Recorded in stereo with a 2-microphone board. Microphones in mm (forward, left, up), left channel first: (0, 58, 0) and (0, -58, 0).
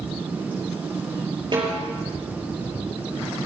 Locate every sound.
1.5 s a snare drum: 45° right (ahead or behind), 5.5 m